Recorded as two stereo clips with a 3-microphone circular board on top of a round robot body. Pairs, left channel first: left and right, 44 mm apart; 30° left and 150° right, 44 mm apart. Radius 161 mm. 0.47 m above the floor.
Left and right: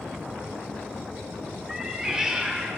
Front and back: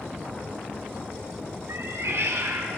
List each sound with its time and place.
1.7 s a cat meowing: 160° right, 1.2 m